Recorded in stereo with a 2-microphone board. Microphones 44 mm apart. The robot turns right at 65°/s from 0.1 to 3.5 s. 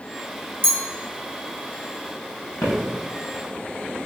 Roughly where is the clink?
Right.